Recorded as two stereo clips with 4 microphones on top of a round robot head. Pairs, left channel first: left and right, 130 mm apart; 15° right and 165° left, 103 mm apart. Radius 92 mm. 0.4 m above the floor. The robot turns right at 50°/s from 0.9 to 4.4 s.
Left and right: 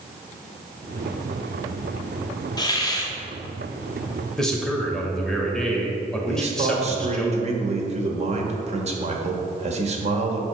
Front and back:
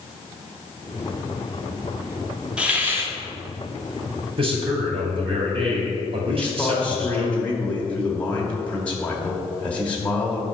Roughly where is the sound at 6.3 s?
Right.